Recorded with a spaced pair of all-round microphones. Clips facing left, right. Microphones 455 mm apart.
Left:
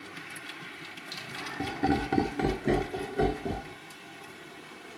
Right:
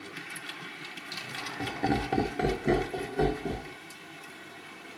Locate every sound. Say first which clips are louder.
1.1 s laughter: left 3 dB; 35° left (ahead or behind), 0.7 m; by 3.8 s 15° right (ahead or behind), 1.0 m